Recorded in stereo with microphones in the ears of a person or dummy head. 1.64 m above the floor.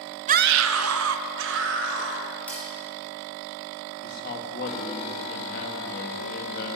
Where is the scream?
35° right (ahead or behind), 0.5 m; by 2.3 s 70° right (ahead or behind), 3 m.